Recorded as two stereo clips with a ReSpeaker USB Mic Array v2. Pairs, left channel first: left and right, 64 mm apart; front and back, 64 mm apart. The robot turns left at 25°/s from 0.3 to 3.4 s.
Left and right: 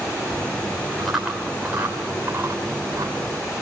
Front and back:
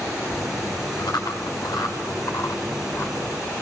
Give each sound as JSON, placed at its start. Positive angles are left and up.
{"t": 1.0, "sound": "chewing", "azimuth_deg": 0, "distance_m": 9.5}